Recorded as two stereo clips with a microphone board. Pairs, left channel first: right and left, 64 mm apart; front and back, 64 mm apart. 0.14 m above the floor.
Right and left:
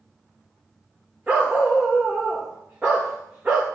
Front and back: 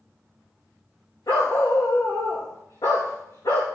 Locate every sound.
1.3 s a dog barking: 15° left, 4 m